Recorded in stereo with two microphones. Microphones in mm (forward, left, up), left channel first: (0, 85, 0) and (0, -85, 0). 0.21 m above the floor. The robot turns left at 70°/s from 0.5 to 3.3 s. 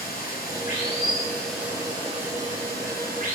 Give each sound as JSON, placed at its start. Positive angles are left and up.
{"t": 0.0, "sound": "running water", "azimuth_deg": 70, "distance_m": 2.0}